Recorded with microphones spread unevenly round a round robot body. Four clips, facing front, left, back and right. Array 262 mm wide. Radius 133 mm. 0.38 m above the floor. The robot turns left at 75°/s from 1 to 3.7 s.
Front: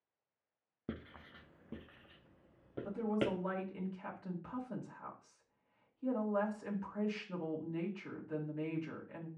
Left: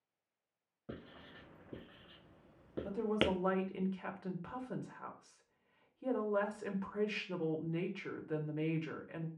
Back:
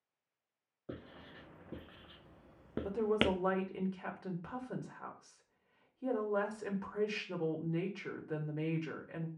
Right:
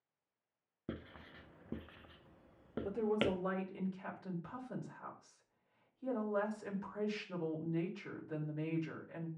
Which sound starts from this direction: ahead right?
Writing, at 0.9 s.